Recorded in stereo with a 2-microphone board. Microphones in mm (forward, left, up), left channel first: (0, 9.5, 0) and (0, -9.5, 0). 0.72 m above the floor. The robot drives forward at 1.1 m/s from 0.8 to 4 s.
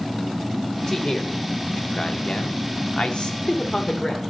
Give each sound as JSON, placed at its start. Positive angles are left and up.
{"t": 0.9, "sound": "a man speaking", "side_deg": 30, "distance_m": 2.5}